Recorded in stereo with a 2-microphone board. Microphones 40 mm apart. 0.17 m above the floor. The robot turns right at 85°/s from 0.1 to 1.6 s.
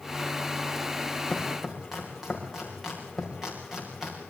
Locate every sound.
1.3 s chopping: 25° left (ahead or behind), 6.5 m; by 4.2 s 5° right (ahead or behind), 6.5 m